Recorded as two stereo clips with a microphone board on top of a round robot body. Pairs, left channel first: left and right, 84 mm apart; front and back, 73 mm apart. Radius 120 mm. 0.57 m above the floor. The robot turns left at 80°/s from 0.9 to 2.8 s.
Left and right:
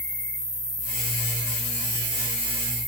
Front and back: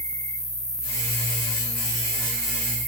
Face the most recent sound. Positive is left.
turn(degrees=-160)